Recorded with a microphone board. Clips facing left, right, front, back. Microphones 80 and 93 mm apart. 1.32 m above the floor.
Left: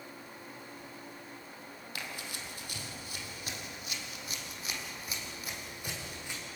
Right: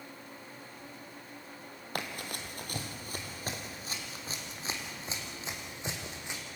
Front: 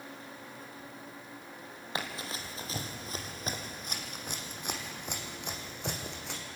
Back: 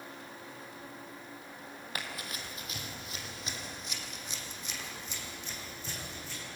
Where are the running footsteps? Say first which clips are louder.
Right 5 dB, front 4 dB; 60° right, 2.5 m; by 6.4 s 20° right, 4 m.